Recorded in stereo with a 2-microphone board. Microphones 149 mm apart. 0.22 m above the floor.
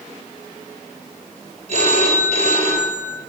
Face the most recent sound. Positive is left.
turn(degrees=-45)  # may be behind; listen again after turning